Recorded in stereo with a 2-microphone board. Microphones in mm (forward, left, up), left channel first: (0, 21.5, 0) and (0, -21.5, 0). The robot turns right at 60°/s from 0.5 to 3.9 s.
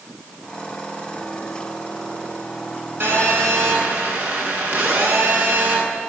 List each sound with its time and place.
3.0 s a phone buzzing: 120° right, 8 m; by 5.8 s 65° right, 8 m